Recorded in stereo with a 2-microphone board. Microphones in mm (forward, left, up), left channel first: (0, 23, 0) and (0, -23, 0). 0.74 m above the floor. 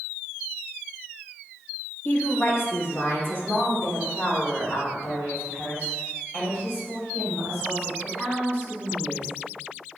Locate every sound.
2.0 s a woman speaking: 50° left (ahead or behind), 1.2 m; by 9.3 s 45° left (ahead or behind), 5 m